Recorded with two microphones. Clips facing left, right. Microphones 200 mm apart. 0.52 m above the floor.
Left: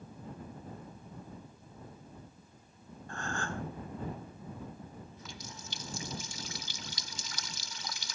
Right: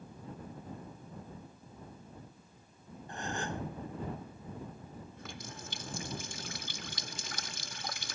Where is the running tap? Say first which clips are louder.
Right 2 dB; 55° right (ahead or behind).